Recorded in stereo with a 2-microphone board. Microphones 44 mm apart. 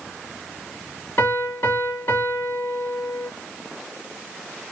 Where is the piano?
55° left (ahead or behind), 3 m.